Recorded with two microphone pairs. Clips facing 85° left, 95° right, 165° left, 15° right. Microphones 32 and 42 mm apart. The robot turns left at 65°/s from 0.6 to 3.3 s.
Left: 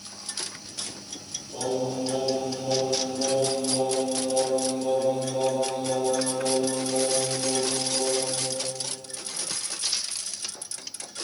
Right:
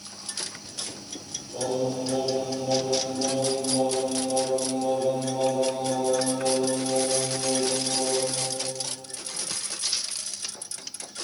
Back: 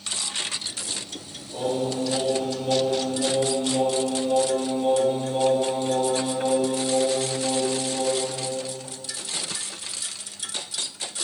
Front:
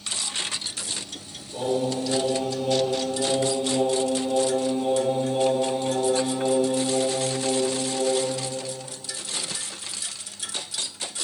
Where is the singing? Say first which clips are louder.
Right 1 dB, front 1 dB; 150° left, 1.1 m; by 8.3 s 35° left, 1.1 m.